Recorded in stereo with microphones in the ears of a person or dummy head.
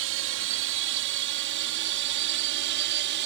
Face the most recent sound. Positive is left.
turn(degrees=-65)  # may be behind; listen again after turning